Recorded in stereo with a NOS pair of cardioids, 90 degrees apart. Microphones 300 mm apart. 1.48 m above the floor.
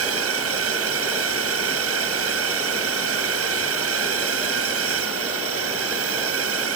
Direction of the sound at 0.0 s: 50° right.